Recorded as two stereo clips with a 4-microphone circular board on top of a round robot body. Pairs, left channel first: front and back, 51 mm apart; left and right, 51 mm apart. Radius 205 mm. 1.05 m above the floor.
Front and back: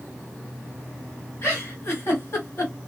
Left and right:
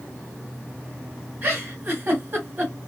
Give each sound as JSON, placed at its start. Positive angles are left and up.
{"t": 1.4, "sound": "a giggle", "azimuth_deg": -35, "distance_m": 1.4}